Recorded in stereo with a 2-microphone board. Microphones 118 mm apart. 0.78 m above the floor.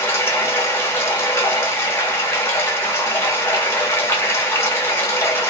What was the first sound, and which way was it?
Running water, 20° left (ahead or behind).